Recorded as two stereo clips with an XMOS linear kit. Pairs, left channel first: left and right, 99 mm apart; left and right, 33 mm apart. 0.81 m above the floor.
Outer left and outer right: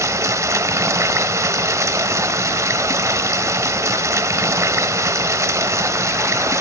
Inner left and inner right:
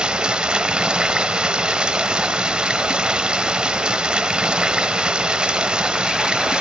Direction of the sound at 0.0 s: 30° right (ahead or behind).